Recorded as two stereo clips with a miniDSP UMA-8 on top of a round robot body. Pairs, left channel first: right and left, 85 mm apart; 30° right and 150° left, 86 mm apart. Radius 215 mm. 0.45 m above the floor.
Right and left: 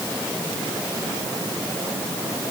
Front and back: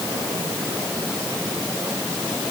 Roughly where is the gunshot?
I don't hear a gunshot.